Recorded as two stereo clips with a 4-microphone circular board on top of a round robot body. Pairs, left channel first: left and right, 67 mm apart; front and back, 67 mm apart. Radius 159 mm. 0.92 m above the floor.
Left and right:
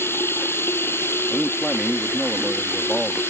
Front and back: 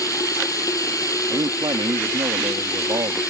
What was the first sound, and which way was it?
Running water, 35° left.